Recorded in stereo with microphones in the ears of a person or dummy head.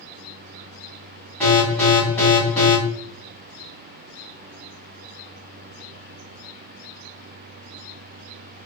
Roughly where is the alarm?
Centre.